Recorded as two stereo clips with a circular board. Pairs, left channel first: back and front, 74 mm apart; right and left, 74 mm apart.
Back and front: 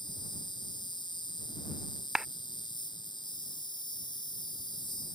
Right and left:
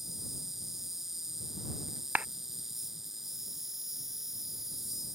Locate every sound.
0.0 s an insect: 175° left
2.1 s a clap: 70° left